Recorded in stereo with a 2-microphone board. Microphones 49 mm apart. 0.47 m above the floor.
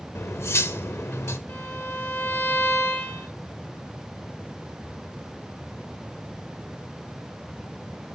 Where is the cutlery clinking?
65° left (ahead or behind), 0.7 m.